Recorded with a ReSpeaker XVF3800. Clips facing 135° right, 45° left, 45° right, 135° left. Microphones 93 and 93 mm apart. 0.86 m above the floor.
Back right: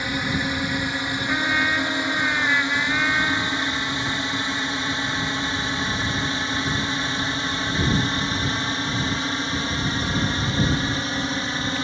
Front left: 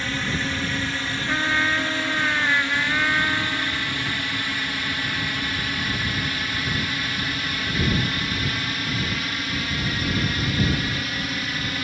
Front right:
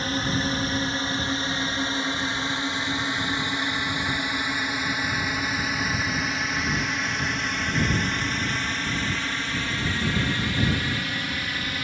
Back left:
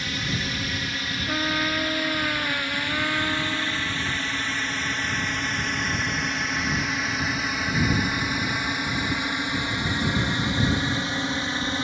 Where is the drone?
70° right; by 11.8 s straight behind.